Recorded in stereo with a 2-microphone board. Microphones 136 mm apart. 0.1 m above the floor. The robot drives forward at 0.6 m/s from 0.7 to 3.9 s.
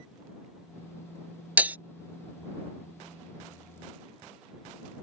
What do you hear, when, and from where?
1.6 s breaking glass: 10° right (ahead or behind); by 1.8 s 15° right (ahead or behind)